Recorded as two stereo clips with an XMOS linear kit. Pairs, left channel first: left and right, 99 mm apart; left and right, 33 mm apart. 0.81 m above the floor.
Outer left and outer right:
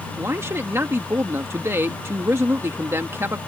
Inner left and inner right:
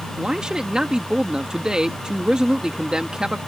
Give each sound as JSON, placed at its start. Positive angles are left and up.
{"t": 0.2, "sound": "a man speaking", "side_deg": -25}